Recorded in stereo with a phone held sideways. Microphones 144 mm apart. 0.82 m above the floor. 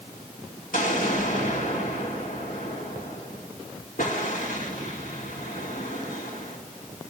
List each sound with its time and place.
0.7 s an explosion: 70° left (ahead or behind), 2.5 m